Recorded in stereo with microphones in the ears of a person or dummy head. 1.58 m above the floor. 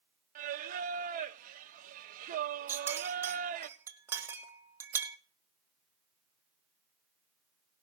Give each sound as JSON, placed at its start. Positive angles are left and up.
{"t": 0.3, "sound": "singing", "side_deg": -45, "distance_m": 0.7}
{"t": 2.7, "sound": "a clink", "side_deg": -15, "distance_m": 1.1}